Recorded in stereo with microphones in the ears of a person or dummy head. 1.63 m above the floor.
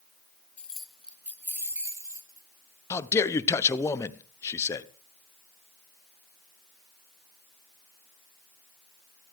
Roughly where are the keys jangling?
Centre.